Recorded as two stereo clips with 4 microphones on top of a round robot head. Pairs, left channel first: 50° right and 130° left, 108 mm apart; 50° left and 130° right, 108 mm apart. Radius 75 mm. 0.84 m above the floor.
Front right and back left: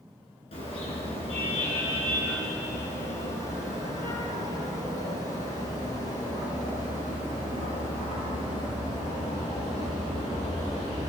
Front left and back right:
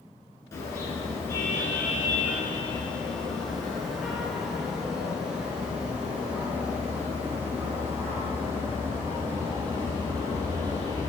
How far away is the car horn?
About 8 m.